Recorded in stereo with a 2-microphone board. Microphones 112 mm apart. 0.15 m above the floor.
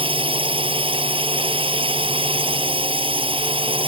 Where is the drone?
55° right (ahead or behind).